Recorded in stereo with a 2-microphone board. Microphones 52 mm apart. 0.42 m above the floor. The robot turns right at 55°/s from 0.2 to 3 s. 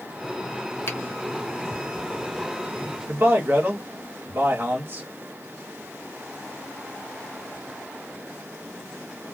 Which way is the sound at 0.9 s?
55° left (ahead or behind).